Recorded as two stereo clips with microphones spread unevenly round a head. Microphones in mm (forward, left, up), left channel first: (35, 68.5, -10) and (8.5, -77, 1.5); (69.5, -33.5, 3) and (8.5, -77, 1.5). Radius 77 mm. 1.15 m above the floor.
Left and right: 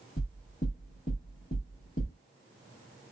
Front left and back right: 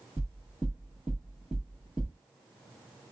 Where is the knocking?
130° left, 1.6 m.